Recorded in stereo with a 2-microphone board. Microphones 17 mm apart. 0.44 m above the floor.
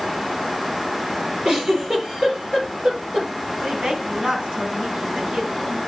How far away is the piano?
I don't hear a piano.